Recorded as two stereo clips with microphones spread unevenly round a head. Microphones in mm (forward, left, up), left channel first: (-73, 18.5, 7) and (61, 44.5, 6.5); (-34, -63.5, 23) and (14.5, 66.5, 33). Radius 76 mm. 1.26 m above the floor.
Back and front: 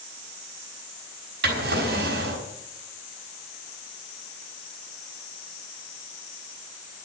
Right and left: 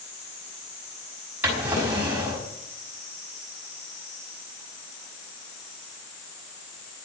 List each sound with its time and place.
1.4 s a drawer: 10° right, 5.5 m